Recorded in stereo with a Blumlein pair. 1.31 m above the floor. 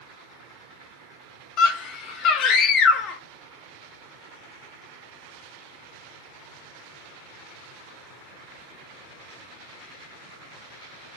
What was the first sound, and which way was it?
A scream, 35° left.